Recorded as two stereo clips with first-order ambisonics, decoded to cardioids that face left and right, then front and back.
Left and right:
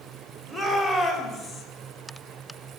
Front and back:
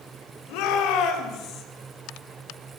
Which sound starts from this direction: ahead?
A shout, at 0.5 s.